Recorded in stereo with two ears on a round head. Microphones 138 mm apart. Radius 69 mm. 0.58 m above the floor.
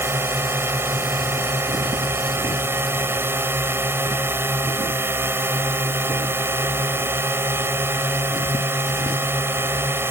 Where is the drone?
15° right (ahead or behind).